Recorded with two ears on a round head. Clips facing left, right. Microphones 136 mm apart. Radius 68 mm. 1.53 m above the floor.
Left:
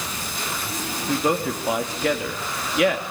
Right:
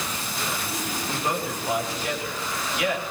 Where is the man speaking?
60° left (ahead or behind), 3 m.